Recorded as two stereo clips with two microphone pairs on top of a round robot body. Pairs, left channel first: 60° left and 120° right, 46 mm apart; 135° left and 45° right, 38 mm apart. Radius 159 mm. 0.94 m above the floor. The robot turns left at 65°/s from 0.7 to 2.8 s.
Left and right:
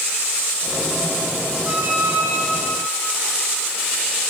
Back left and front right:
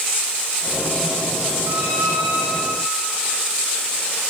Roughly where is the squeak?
Ahead right.